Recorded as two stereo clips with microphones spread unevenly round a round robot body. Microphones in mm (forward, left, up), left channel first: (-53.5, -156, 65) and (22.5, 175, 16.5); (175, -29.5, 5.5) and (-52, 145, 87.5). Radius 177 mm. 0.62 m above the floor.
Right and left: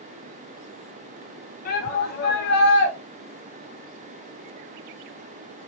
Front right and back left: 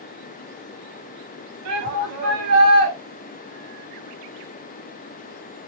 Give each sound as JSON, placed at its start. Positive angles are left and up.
{"t": 1.6, "sound": "a shout", "azimuth_deg": -170, "distance_m": 5.5}